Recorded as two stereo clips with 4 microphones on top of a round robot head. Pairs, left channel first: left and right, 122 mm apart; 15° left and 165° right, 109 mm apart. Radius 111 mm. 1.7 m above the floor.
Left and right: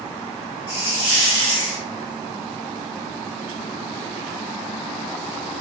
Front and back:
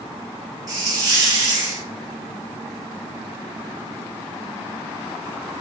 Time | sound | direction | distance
0.7 | a hiss | 145° left | 1.2 m